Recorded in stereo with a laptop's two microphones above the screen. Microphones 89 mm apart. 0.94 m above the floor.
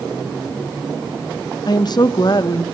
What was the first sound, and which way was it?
A woman speaking, 50° left (ahead or behind).